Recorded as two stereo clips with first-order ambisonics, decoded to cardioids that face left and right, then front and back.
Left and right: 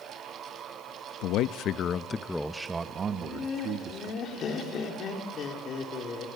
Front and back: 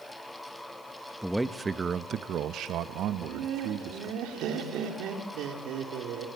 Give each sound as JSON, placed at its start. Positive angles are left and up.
{"t": 1.2, "sound": "a man speaking", "azimuth_deg": 90, "distance_m": 0.8}
{"t": 3.1, "sound": "laughter", "azimuth_deg": 145, "distance_m": 3.0}